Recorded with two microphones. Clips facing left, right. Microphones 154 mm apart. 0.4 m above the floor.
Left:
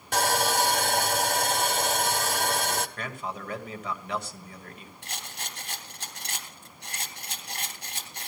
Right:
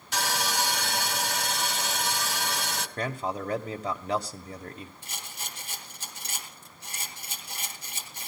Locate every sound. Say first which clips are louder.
0.1 s sawing: left 5 dB; 55° left (ahead or behind), 1.3 m
3.0 s a man speaking: right 5 dB; 35° right (ahead or behind), 1.5 m
5.0 s a rattle: left 2 dB; 70° left (ahead or behind), 3.5 m